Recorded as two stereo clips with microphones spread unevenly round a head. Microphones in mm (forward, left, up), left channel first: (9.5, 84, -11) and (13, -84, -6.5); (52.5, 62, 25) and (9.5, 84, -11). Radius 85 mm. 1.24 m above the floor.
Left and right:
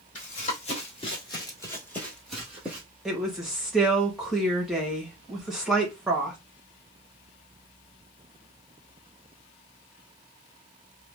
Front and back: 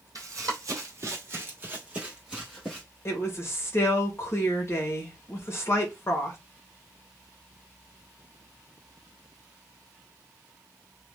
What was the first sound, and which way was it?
Running footsteps, 120° left.